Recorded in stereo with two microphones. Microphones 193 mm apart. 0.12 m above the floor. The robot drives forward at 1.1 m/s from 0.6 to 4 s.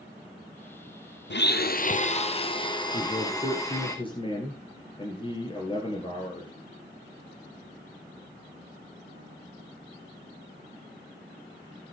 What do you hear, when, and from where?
1.3 s a blender: 65° left (ahead or behind), 0.9 m; by 3.9 s 15° left (ahead or behind), 3 m
2.9 s a man speaking: 35° left (ahead or behind), 2 m; by 6.5 s 25° left (ahead or behind), 2.5 m